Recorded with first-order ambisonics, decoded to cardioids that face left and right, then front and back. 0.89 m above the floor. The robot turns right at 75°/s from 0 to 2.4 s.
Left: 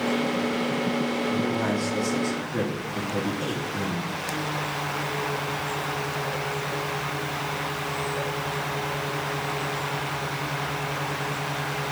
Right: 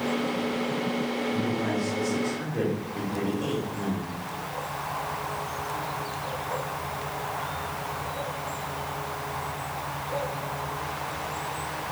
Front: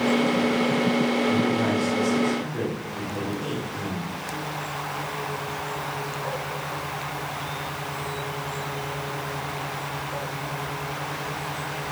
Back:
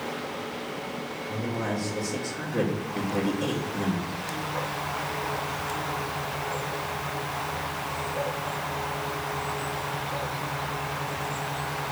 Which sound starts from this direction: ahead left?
A man speaking, at 1.3 s.